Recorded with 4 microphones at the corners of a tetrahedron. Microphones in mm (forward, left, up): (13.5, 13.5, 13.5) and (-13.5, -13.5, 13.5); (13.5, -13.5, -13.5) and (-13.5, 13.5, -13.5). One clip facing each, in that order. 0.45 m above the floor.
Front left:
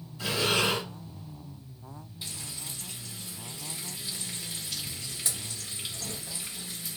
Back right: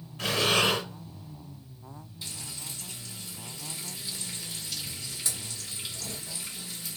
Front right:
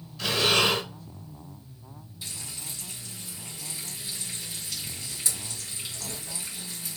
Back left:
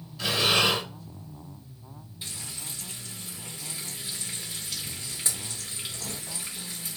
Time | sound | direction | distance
0.2 | breathing | 140° right | 1.3 m
2.2 | frying | 110° left | 1.6 m